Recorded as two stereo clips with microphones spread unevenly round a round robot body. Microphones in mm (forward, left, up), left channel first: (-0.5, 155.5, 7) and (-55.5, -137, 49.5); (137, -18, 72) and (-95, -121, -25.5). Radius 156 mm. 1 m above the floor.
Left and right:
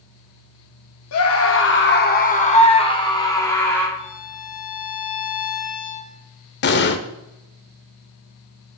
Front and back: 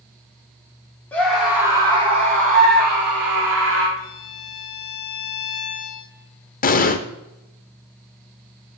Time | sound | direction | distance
1.1 | a scream | 115° left | 2.5 m
4.0 | a violin | 60° left | 3.5 m
6.6 | an explosion | 25° left | 0.9 m